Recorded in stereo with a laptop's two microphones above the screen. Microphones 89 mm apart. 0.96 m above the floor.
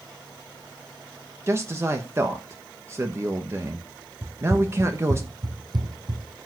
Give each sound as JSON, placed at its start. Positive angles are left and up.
{"t": 1.5, "sound": "a man speaking", "side_deg": -30, "distance_m": 1.0}
{"t": 4.2, "sound": "running footsteps", "side_deg": -30, "distance_m": 1.1}